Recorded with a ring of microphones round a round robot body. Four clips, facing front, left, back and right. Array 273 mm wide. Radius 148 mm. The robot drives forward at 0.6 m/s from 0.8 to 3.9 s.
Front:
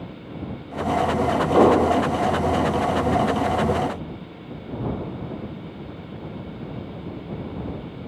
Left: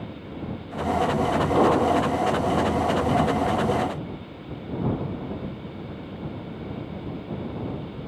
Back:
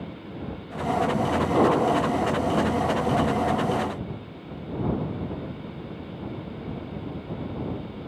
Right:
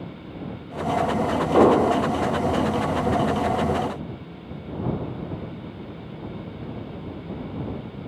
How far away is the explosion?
About 1.2 m.